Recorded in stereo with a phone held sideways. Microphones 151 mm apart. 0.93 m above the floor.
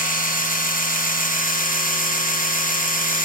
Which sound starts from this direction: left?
A machine running, at 0.0 s.